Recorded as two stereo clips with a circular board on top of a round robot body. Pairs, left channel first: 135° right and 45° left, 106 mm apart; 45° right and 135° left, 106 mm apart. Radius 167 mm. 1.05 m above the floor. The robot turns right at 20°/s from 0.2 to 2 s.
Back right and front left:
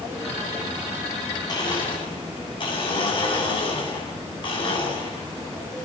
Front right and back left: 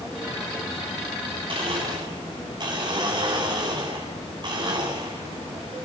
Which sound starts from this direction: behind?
A blender, at 1.5 s.